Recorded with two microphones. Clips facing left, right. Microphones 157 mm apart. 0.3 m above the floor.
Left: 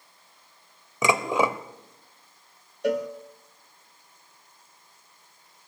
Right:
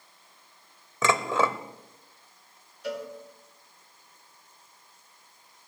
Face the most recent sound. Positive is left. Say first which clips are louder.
# left 9 dB
turn(degrees=60)  # may be behind; listen again after turning